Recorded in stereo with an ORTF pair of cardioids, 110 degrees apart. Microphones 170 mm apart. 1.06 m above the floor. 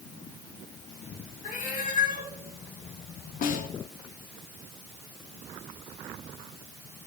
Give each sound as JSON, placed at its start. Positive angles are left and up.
{"t": 1.4, "sound": "a cat meowing", "azimuth_deg": 50, "distance_m": 3.5}
{"t": 3.4, "sound": "a snare drum", "azimuth_deg": 55, "distance_m": 1.6}